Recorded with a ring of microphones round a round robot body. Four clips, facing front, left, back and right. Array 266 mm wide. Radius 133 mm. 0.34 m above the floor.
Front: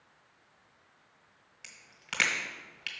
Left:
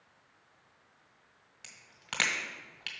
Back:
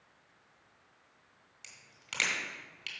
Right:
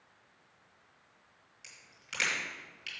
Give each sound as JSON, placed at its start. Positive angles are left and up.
{"t": 1.6, "sound": "a crack", "azimuth_deg": 70, "distance_m": 1.9}